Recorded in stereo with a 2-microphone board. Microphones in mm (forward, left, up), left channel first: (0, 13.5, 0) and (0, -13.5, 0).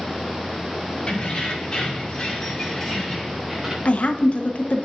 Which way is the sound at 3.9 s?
60° left (ahead or behind).